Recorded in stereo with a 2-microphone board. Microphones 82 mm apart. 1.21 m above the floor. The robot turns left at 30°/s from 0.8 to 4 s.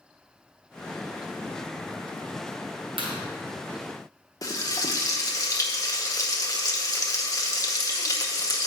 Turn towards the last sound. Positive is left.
turn(degrees=40)  # may be behind; listen again after turning